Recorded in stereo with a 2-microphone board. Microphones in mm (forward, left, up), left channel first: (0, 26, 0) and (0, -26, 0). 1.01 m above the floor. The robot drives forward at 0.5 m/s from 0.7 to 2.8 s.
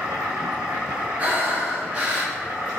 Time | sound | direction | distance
0.0 | an insect | 75° right (ahead or behind) | 1.5 m
1.2 | breathing | 30° right (ahead or behind) | 0.9 m